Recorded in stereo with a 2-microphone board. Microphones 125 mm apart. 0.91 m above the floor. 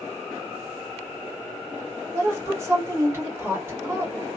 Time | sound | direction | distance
2.1 | a woman speaking | 20° right (ahead or behind) | 1.6 m